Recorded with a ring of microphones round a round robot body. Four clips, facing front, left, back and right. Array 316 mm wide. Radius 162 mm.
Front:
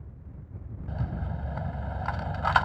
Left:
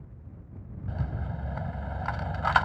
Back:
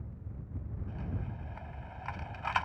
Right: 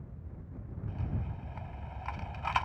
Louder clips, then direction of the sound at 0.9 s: Left 5 dB, front 7 dB; 45° left.